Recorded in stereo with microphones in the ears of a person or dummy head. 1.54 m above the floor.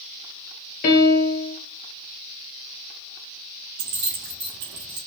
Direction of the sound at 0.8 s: 45° left (ahead or behind).